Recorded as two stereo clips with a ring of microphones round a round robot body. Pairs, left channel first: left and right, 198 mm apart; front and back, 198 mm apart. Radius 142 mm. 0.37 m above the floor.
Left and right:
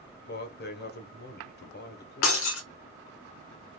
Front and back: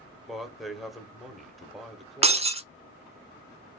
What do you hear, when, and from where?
0.3 s a man speaking: 90° left, 1.3 m
2.2 s breaking glass: 120° left, 0.6 m